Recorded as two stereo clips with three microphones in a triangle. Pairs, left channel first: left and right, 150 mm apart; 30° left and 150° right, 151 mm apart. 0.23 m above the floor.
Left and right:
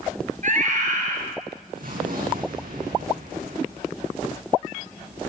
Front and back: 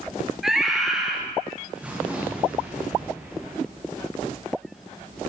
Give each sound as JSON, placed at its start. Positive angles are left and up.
{"t": 0.4, "sound": "a scream", "azimuth_deg": -60, "distance_m": 3.5}
{"t": 1.8, "sound": "an explosion", "azimuth_deg": -65, "distance_m": 8.0}